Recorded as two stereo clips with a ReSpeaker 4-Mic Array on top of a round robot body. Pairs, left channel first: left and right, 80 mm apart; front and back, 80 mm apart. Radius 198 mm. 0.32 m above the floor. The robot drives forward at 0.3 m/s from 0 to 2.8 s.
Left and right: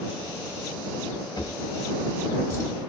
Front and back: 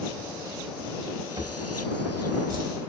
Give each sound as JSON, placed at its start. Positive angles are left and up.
{"t": 1.4, "sound": "a drawer", "azimuth_deg": 140, "distance_m": 1.3}